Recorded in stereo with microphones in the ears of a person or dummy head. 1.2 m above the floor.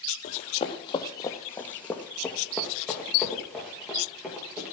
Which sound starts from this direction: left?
Running footsteps, at 0.2 s.